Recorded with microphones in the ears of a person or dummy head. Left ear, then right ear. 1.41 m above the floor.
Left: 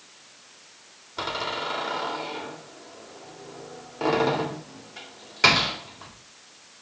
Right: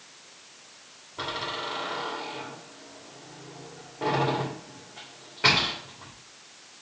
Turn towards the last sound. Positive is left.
turn(degrees=80)